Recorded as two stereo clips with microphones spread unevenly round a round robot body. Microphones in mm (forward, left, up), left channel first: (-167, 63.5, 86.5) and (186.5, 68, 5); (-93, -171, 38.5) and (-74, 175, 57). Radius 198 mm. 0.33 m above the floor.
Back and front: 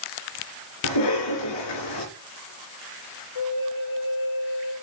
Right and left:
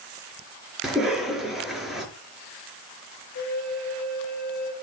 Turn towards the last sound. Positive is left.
turn(degrees=-145)